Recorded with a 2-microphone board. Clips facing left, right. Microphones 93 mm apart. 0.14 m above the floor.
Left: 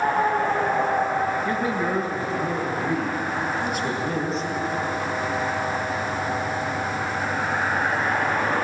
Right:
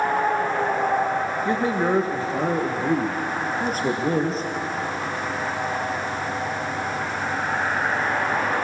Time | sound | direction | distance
1.4 | a man speaking | 25° right (ahead or behind) | 2.5 m